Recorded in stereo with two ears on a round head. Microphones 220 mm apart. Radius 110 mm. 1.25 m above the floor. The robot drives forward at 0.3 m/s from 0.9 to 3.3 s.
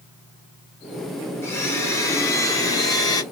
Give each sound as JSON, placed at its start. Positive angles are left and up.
{"t": 1.4, "sound": "a blender", "side_deg": 10, "distance_m": 1.7}